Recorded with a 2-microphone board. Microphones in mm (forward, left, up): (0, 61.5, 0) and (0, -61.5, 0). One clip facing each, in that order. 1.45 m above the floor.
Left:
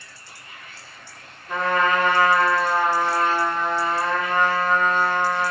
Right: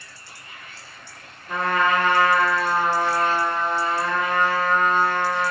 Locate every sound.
1.5 s a trumpet: 5° right (ahead or behind), 1.1 m